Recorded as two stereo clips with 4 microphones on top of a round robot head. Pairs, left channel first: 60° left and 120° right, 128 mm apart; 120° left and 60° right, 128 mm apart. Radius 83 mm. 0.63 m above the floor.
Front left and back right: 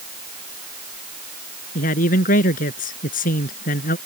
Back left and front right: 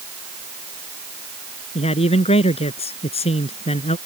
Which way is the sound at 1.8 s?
80° left.